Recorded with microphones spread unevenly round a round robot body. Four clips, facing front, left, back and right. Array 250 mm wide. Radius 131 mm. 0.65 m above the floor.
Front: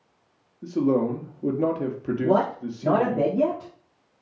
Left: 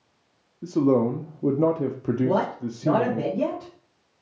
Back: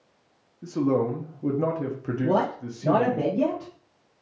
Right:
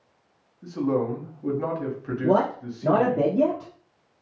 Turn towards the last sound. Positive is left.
turn(degrees=-65)